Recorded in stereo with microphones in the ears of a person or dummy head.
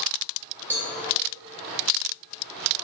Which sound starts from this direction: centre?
A cowbell, at 0.7 s.